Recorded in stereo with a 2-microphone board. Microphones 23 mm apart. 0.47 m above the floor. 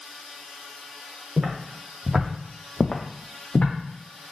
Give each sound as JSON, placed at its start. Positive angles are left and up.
{"t": 1.4, "sound": "footsteps", "side_deg": -50, "distance_m": 2.0}